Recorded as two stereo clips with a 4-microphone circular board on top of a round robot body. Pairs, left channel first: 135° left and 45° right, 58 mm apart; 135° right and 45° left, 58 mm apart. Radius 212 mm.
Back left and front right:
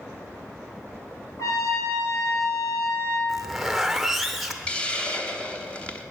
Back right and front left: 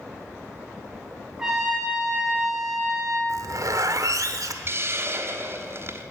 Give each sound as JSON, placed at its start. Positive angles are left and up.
{"t": 1.4, "sound": "a trumpet", "azimuth_deg": 125, "distance_m": 3.0}
{"t": 3.3, "sound": "a zipper", "azimuth_deg": 40, "distance_m": 1.0}
{"t": 4.7, "sound": "a hiss", "azimuth_deg": 70, "distance_m": 1.4}